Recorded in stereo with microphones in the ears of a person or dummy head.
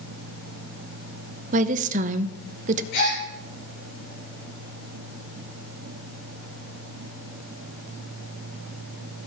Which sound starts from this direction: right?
A woman speaking, at 1.5 s.